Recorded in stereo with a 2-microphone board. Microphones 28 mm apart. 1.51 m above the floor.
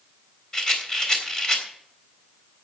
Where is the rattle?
20° left (ahead or behind), 3.5 m.